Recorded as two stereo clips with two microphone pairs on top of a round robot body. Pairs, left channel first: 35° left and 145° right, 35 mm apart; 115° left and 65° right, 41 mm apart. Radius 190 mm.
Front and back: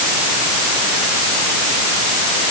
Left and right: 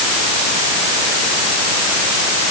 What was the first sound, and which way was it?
Only background noise.